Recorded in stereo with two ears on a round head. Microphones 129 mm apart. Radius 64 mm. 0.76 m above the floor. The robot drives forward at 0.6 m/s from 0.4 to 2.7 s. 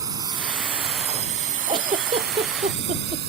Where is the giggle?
40° right (ahead or behind).